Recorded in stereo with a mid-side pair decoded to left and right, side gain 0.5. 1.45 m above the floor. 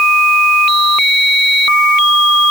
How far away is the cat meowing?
No cat meowing in this recording.